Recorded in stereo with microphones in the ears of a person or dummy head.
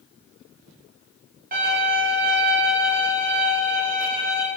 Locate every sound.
1.5 s a violin: 45° right (ahead or behind), 1.7 m